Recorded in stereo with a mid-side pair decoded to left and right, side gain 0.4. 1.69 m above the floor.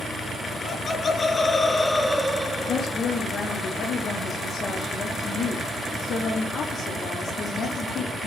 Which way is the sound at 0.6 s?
45° left.